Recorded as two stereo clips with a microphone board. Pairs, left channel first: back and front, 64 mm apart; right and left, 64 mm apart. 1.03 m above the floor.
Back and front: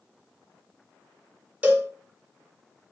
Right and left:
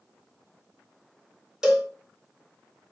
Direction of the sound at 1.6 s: 30° left.